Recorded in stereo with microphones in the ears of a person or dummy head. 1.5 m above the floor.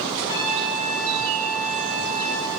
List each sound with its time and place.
0.3 s a trumpet: 50° left (ahead or behind), 5.5 m